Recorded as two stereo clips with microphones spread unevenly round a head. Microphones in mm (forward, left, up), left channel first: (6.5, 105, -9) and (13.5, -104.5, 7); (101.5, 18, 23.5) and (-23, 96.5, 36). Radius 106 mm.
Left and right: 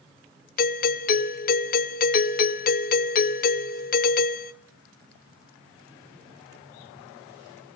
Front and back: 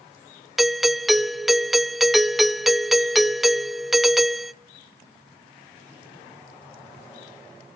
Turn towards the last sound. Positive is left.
turn(degrees=55)